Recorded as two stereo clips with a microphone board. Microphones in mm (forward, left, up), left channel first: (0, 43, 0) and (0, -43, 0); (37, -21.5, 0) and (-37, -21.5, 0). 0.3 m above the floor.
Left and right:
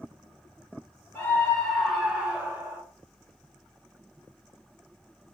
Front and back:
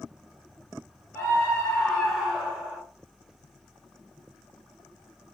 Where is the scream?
40° left, 1.3 m; by 2.8 s 120° right, 1.3 m.